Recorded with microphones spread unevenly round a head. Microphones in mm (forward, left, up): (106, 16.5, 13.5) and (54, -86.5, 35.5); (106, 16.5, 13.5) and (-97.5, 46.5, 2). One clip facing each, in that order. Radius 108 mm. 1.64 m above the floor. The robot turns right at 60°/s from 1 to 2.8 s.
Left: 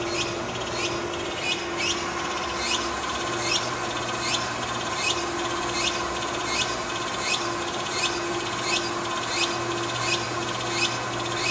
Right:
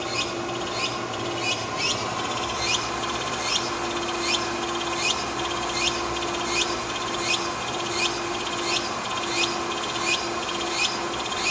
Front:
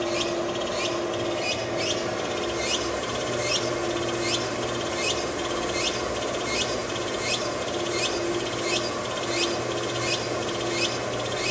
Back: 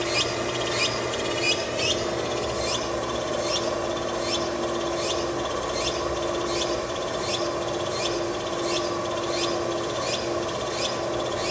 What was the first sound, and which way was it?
Running water, 150° right.